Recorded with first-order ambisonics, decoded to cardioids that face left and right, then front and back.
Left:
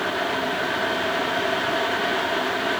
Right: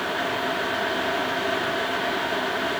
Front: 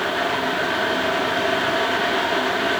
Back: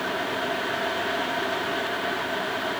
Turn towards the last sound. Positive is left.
No sound to turn to.